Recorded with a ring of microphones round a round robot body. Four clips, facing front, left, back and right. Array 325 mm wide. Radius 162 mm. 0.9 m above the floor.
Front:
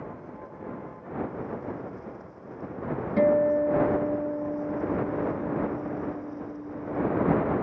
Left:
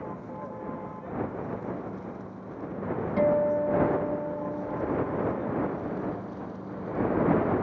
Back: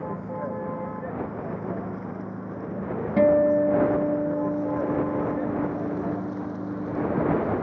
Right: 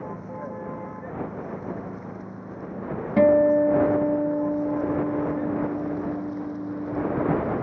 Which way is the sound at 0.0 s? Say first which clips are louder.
Right 3 dB, back 9 dB; 165° right.